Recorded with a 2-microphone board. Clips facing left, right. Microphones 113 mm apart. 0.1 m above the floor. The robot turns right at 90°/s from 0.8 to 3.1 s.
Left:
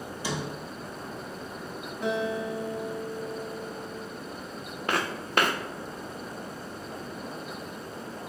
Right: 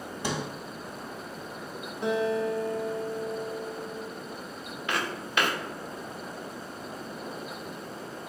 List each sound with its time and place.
0.2 s a sliding door: 60° right (ahead or behind), 0.7 m
2.0 s a guitar: 50° right, 0.9 m; by 4.1 s 50° left, 0.9 m
4.9 s footsteps: 45° left (ahead or behind), 0.7 m